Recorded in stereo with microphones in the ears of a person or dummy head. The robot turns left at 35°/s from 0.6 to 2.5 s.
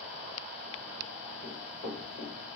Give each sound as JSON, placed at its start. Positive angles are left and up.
{"t": 1.4, "sound": "running footsteps", "side_deg": -15, "distance_m": 1.8}